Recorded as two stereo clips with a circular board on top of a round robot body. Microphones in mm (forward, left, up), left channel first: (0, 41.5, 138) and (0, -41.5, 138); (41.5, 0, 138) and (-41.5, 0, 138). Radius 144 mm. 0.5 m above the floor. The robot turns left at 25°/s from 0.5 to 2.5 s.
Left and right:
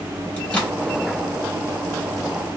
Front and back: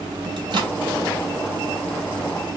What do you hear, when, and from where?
0.4 s a microwave: 165° left, 1.2 m; by 0.8 s 160° left, 1.2 m